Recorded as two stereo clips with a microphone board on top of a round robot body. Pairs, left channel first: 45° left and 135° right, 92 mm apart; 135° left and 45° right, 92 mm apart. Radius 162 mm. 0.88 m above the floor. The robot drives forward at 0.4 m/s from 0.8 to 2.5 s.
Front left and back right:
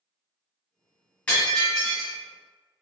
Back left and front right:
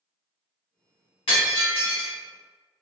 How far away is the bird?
No bird in this recording.